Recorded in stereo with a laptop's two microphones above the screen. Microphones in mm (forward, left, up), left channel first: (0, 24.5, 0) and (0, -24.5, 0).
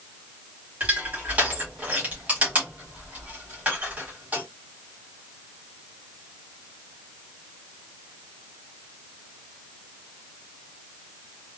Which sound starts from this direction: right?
Crushing, at 0.8 s.